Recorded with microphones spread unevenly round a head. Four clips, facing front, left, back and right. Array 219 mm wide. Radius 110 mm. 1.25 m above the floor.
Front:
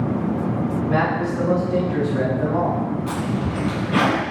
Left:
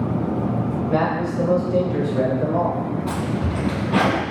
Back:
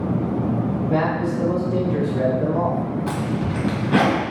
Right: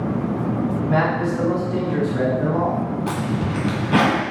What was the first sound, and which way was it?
A man speaking, 50° right.